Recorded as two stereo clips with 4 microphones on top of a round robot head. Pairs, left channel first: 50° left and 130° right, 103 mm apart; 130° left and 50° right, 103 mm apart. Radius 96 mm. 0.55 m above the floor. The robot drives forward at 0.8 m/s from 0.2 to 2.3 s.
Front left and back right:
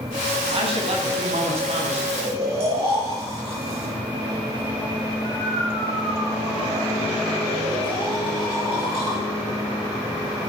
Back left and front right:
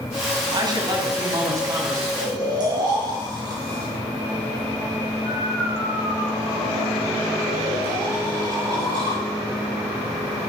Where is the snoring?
100° right, 8 m.